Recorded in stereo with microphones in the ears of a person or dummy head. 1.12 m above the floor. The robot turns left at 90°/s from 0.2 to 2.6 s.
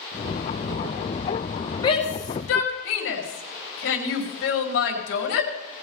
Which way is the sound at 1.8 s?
25° left (ahead or behind).